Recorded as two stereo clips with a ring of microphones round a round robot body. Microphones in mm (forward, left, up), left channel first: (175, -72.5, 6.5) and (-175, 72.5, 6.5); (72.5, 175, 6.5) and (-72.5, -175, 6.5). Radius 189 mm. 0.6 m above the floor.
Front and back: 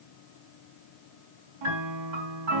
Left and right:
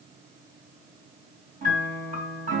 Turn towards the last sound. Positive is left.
turn(degrees=175)